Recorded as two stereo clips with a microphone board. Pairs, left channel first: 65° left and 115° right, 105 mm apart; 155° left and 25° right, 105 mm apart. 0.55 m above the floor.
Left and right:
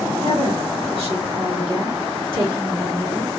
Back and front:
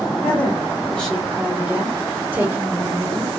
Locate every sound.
0.2 s a woman speaking: 135° right, 1.7 m; by 3.3 s 65° right, 1.4 m